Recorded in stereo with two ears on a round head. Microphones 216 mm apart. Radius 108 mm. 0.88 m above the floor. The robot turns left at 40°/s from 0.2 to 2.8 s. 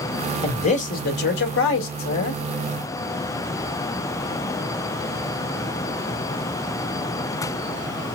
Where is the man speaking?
155° left, 1.5 m; by 2.4 s 75° left, 1.5 m.